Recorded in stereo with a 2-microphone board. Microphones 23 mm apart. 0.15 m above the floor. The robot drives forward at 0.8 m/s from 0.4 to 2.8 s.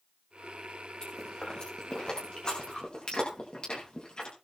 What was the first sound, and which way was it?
Chewing, 35° left (ahead or behind).